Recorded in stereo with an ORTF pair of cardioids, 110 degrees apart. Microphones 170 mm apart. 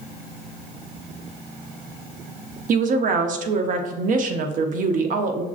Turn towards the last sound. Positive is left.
turn(degrees=-55)